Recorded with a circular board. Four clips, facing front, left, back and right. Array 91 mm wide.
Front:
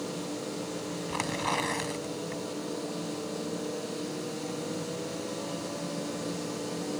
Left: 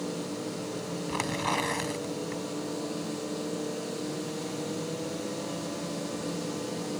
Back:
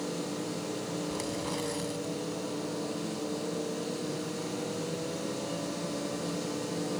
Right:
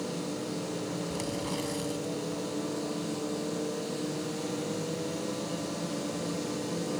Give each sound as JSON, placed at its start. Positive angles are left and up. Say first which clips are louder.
{"t": 1.1, "sound": "tearing paper", "louder": "left 3 dB, front 3 dB", "azimuth_deg": 50}